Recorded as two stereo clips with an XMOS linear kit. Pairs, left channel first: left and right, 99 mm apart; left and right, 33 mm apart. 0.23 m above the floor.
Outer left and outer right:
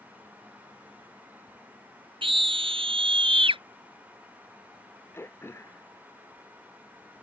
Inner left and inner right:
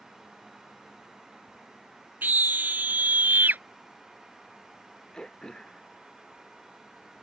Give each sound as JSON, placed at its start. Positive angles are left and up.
{"t": 2.2, "sound": "a scream", "side_deg": -65}
{"t": 5.1, "sound": "throat clearing", "side_deg": 25}